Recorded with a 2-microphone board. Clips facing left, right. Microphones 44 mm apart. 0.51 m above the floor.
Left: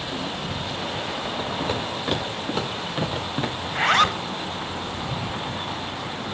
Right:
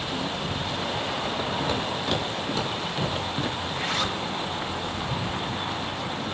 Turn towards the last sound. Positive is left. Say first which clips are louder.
# left 8 dB
turn(degrees=65)  # may be behind; listen again after turning